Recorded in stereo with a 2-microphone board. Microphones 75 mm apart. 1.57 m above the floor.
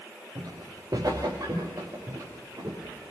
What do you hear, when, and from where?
0.3 s footsteps: 50° right (ahead or behind), 9 m; by 3.1 s 45° right (ahead or behind), 10 m